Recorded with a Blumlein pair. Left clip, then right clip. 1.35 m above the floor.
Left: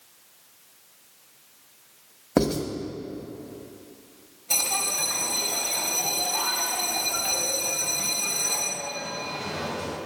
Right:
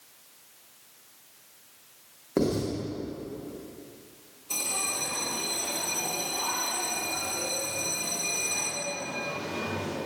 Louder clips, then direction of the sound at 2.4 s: Left 3 dB; 65° left.